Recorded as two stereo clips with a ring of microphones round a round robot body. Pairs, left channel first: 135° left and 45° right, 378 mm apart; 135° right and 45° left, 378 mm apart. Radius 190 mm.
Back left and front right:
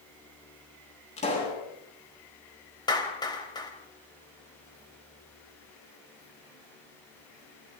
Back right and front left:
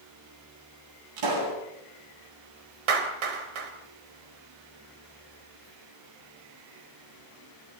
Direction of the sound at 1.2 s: 60° left.